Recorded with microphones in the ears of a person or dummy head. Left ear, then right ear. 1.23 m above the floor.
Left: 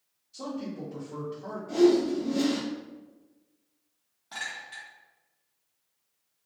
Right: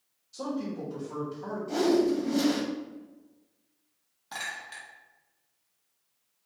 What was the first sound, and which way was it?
A man speaking, 60° right (ahead or behind).